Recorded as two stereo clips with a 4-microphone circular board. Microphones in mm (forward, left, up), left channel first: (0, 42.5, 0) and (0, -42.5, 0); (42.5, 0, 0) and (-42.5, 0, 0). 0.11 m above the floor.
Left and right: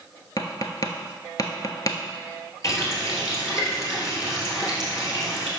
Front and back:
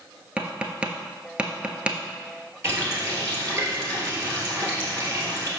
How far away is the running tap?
About 1.6 m.